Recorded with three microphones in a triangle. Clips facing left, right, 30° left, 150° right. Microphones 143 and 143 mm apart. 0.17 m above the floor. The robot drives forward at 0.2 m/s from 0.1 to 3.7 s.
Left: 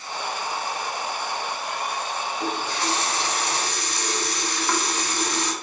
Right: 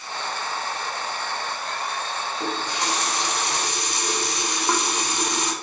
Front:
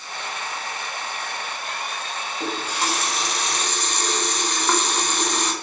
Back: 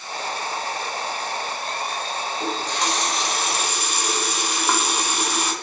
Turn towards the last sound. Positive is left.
turn(degrees=-85)